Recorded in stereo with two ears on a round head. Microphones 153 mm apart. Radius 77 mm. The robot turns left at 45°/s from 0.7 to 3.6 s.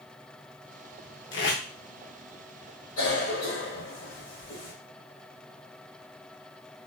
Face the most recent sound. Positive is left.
turn(degrees=55)  # may be behind; listen again after turning